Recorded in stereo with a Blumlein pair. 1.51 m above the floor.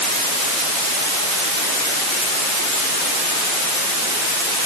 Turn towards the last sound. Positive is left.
No sound to turn to.